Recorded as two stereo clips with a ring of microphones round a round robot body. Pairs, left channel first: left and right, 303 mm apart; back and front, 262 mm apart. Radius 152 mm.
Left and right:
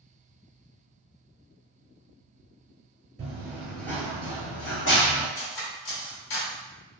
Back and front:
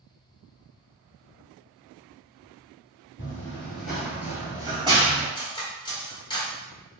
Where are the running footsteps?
125° right, 0.8 m; by 5.2 s 65° left, 1.1 m.